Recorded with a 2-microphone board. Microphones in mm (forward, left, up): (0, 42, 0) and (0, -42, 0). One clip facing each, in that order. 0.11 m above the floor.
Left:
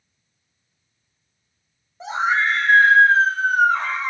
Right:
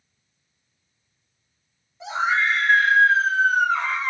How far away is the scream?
About 2 m.